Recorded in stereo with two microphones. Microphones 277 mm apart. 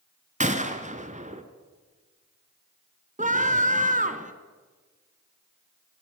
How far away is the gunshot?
About 1.7 m.